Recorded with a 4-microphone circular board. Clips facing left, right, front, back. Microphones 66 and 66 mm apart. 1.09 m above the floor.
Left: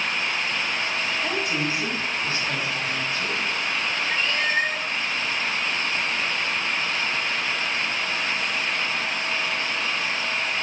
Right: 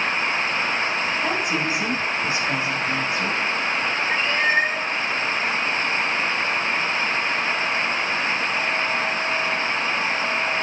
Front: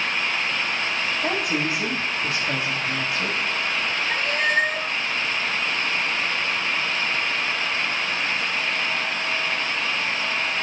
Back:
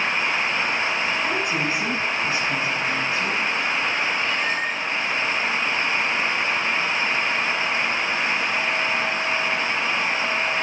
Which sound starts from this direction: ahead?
A woman speaking, at 1.2 s.